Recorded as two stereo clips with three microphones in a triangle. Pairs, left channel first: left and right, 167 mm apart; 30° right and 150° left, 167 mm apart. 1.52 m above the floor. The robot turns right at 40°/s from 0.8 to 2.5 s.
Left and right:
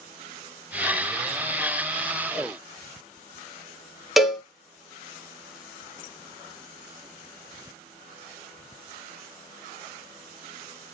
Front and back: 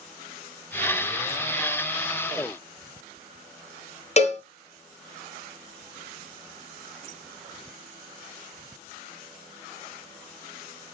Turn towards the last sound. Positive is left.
turn(degrees=-5)